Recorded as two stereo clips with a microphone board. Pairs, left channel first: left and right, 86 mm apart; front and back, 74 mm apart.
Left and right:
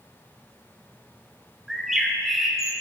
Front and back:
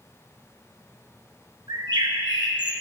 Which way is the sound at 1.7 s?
175° right.